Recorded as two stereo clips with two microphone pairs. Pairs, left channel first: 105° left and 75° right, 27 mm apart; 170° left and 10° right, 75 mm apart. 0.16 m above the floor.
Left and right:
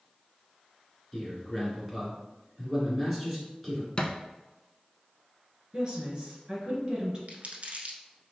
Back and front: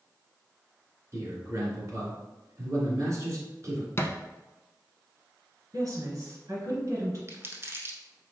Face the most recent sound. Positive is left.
turn(degrees=-55)